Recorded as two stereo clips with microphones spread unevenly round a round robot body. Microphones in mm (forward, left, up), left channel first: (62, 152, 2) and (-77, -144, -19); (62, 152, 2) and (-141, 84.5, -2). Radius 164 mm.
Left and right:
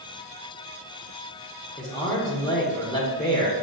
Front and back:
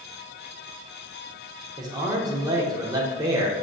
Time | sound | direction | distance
1.8 | a man speaking | 140° left | 0.8 m